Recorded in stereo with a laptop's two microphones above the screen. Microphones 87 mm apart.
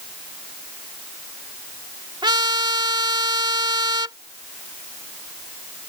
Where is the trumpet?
75° right (ahead or behind).